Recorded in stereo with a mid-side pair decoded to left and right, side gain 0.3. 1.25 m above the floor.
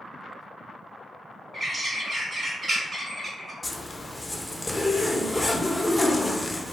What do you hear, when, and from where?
1.5 s a bird: 40° right, 1.0 m
3.6 s a zipper: 15° left, 0.5 m